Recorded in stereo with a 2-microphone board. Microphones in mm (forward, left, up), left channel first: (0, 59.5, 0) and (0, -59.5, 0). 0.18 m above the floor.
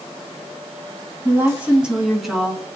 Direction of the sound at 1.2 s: 20° right (ahead or behind).